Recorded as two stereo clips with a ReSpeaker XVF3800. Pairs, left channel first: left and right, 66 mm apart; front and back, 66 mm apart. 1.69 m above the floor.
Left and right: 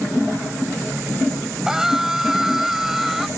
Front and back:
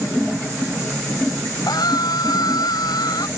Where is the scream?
5° right.